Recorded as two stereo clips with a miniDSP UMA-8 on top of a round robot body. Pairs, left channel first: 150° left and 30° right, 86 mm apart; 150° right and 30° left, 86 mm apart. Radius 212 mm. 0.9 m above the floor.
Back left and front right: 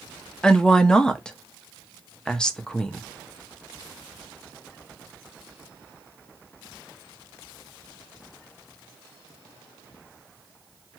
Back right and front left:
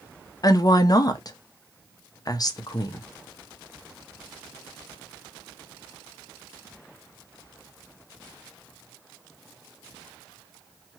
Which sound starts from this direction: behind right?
A woman speaking, at 0.4 s.